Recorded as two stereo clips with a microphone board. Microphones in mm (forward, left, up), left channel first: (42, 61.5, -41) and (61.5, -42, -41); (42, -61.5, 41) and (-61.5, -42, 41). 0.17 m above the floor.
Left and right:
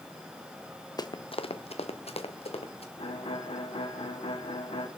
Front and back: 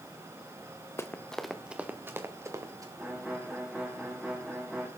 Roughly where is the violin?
Left.